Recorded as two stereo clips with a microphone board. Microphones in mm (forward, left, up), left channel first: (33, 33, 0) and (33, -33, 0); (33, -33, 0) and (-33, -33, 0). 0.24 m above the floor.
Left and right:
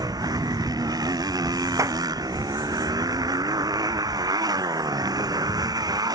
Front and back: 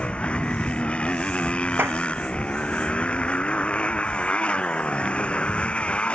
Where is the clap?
125° right.